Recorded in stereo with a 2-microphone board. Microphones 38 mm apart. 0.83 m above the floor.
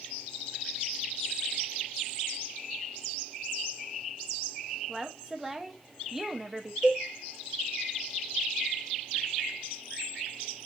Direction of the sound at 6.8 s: 20° right (ahead or behind).